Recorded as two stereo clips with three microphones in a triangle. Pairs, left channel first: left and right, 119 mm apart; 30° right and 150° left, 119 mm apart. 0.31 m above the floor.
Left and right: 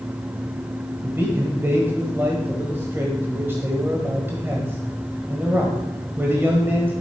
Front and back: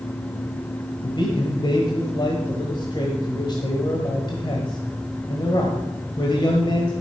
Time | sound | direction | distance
1.0 | a man speaking | 30° right | 1.5 m